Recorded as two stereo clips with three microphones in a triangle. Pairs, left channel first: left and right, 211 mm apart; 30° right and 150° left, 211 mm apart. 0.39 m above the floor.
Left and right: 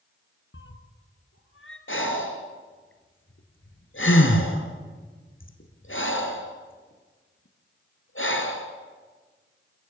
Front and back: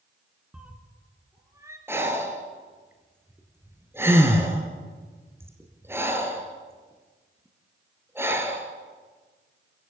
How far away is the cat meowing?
About 2 m.